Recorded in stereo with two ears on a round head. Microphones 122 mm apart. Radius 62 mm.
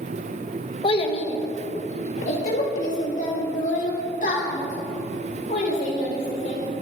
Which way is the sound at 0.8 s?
40° left (ahead or behind).